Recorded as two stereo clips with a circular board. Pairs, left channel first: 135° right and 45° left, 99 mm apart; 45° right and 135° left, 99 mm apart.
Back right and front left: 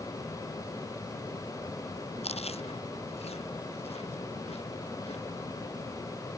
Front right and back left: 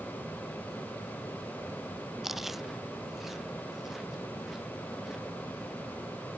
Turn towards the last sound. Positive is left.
turn(degrees=-140)